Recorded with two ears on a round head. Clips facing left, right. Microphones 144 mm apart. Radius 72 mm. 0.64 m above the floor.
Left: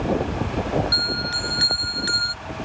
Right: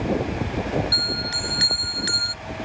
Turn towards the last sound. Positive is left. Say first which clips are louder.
# left 1 dB
turn(degrees=-20)  # may be behind; listen again after turning